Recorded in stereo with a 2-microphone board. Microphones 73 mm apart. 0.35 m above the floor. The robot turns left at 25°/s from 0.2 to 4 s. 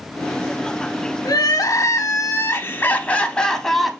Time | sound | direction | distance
1.2 | crying | 65° left | 0.5 m